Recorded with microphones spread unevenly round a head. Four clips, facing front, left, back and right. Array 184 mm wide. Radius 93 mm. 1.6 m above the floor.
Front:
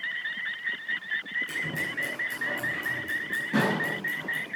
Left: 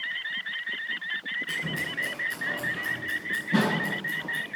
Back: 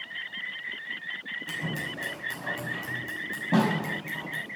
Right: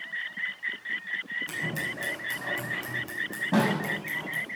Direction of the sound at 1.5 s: 150° right.